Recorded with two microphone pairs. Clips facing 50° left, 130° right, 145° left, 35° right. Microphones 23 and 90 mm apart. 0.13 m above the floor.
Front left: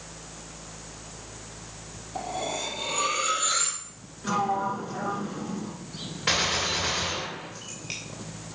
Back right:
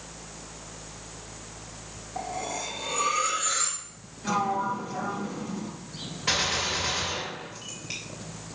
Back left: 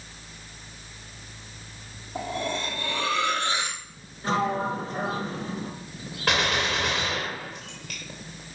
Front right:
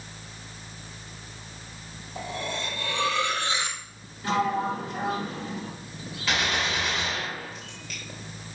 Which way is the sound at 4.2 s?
120° left.